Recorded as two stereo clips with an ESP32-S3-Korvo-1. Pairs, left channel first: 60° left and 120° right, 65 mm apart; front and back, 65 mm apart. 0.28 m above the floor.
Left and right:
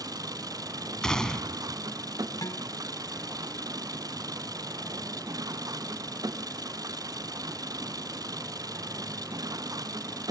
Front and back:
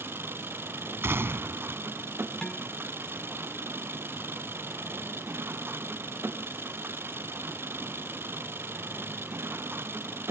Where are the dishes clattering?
80° left.